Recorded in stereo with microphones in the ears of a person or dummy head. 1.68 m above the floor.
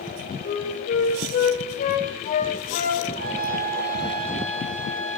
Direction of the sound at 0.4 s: 45° left (ahead or behind).